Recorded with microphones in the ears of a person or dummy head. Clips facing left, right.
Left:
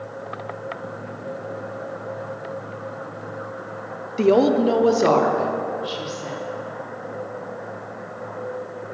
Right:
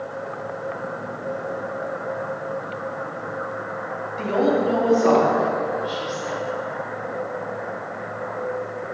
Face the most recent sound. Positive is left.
turn(degrees=50)  # may be behind; listen again after turning